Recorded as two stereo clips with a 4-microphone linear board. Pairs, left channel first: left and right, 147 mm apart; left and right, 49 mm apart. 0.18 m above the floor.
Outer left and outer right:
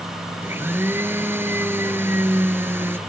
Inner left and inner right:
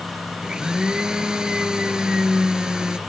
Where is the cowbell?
I don't hear a cowbell.